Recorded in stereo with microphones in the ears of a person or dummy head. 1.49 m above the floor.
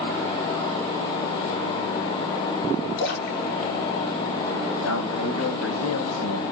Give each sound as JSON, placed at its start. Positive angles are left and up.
{"t": 3.0, "sound": "a splash", "side_deg": 40, "distance_m": 6.5}
{"t": 4.8, "sound": "a man speaking", "side_deg": 80, "distance_m": 9.0}